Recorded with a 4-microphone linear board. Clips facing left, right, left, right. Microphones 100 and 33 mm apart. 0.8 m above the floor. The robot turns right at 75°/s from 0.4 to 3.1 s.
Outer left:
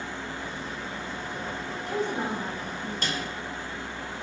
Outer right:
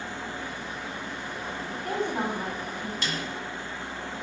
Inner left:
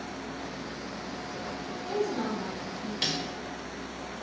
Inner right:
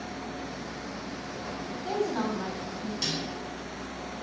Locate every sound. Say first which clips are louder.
1.7 s a woman speaking: even, inner right 1 dB; 135° right, 1.8 m; by 2.9 s 45° right, 1.8 m
3.0 s a snare drum: outer left 2 dB, inner left 3 dB; 45° left (ahead or behind), 1.6 m; by 3.2 s 40° left (ahead or behind), 1.6 m